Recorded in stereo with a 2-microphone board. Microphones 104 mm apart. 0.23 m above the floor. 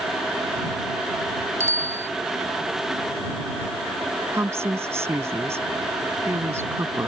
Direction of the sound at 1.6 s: 25° right (ahead or behind).